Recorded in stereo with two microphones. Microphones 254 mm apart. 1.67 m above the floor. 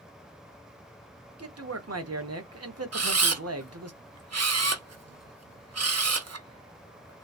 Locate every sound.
1.4 s a man speaking: 75° right (ahead or behind), 0.7 m
2.9 s a camera shutter: 80° right, 0.5 m